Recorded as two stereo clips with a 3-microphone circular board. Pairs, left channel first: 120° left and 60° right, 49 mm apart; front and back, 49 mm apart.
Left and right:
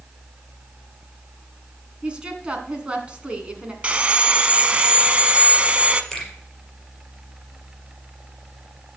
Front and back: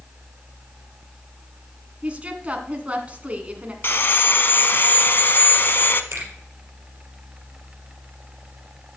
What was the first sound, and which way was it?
A woman speaking, 125° right.